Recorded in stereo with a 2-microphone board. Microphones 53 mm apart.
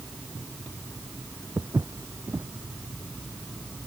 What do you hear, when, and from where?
1.6 s footsteps: 70° right (ahead or behind)